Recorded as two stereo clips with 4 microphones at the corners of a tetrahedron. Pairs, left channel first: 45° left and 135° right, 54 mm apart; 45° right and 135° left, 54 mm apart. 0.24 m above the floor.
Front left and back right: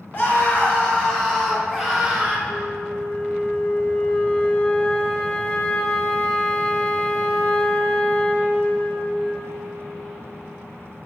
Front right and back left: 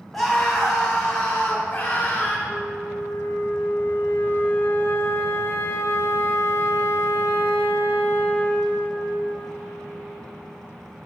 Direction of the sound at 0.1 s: 45° left.